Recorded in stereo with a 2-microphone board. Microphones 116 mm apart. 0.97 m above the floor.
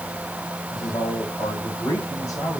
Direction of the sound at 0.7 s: 35° left (ahead or behind).